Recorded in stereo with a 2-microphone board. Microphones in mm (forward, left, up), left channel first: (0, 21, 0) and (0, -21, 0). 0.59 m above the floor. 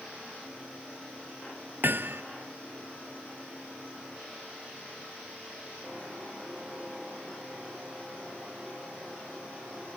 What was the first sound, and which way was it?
Hammering, 55° right (ahead or behind).